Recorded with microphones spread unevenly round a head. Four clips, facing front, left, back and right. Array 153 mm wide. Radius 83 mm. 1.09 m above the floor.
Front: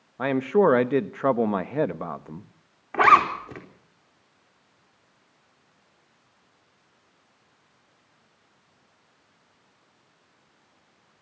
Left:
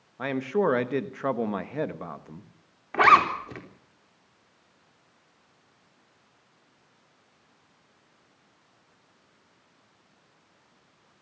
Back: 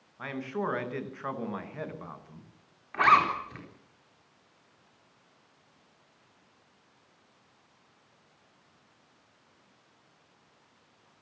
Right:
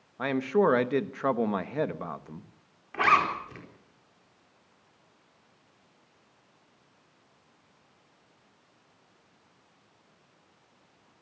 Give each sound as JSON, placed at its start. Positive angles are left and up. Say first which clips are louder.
{"t": 0.2, "sound": "a man speaking", "louder": "right 1 dB, front 14 dB", "azimuth_deg": -5, "distance_m": 1.3}
{"t": 2.9, "sound": "a zipper", "louder": "left 6 dB, front 5 dB", "azimuth_deg": 40, "distance_m": 4.0}